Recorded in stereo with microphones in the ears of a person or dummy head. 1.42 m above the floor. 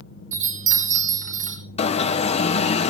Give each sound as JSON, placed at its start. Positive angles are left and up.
{"t": 0.3, "sound": "a chime", "side_deg": -40, "distance_m": 5.0}
{"t": 1.8, "sound": "an alarm", "side_deg": 30, "distance_m": 1.0}